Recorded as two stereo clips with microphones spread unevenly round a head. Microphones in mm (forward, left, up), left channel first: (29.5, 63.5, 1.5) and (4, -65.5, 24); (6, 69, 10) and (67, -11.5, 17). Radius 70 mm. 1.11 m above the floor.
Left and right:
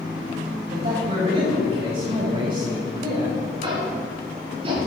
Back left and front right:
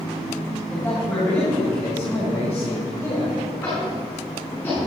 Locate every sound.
0.7 s a man speaking: 150° right, 5.5 m; by 3.4 s 160° right, 4.5 m
3.6 s tapping: 155° right, 5.5 m